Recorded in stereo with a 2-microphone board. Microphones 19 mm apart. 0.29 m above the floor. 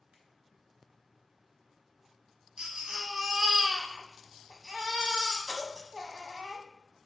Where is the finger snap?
75° right (ahead or behind), 2.5 m.